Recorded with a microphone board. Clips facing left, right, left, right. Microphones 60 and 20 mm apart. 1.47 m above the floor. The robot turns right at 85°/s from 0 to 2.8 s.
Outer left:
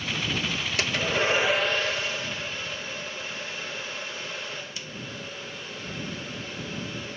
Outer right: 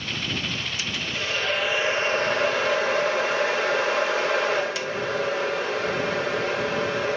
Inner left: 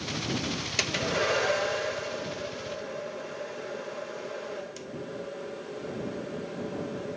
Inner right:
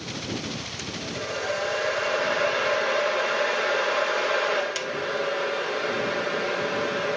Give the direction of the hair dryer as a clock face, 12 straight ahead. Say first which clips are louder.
Outer left 4 dB, inner left 5 dB; 8 o'clock.